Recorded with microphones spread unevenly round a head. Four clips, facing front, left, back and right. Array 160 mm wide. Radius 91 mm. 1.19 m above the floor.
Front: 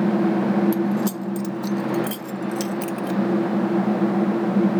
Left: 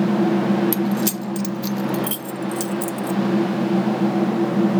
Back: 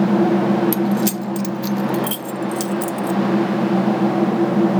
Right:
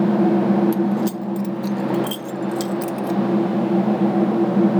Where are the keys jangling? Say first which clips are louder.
Right 1 dB, back 3 dB; 130° left; by 3.2 s 55° left.